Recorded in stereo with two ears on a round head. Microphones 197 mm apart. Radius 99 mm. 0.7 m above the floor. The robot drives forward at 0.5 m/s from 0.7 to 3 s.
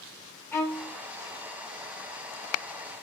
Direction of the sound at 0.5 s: 10° left (ahead or behind).